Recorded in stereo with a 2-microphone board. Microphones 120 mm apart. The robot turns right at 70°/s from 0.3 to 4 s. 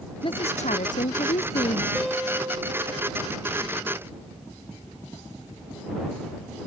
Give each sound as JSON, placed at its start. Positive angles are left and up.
{"t": 0.2, "sound": "a woman speaking", "azimuth_deg": 45}
{"t": 1.9, "sound": "a guitar", "azimuth_deg": 175}